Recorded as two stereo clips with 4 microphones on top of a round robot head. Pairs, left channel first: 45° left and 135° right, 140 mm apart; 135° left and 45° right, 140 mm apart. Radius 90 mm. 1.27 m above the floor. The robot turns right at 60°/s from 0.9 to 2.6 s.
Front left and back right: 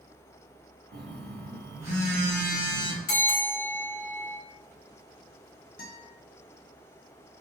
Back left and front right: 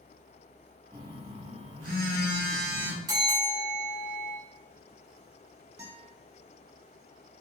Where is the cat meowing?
No cat meowing in this recording.